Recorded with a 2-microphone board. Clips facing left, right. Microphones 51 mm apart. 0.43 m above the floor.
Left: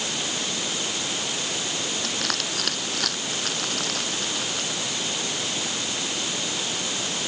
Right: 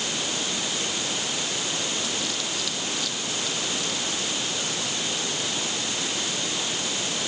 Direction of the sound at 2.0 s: 60° left (ahead or behind).